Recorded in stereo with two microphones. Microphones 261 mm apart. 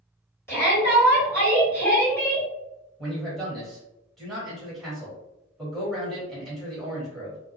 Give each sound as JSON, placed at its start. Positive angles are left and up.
{"t": 0.5, "sound": "a shout", "side_deg": 10, "distance_m": 2.0}
{"t": 3.0, "sound": "a man speaking", "side_deg": 0, "distance_m": 1.6}